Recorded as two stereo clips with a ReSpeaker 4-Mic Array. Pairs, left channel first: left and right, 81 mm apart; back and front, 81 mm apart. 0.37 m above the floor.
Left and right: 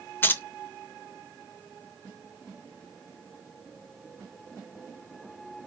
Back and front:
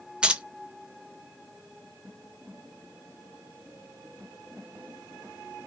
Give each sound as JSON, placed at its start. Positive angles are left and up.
{"t": 0.2, "sound": "keys jangling", "azimuth_deg": 65, "distance_m": 0.5}